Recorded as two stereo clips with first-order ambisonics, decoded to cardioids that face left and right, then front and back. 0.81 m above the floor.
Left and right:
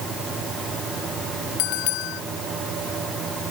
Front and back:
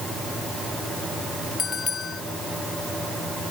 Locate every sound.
1.6 s a bell: 70° left